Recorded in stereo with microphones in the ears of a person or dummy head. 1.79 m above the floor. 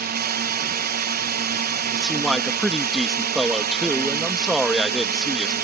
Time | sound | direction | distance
0.0 | a drone | 50° right (ahead or behind) | ?
1.9 | a man speaking | centre (ahead or behind) | ?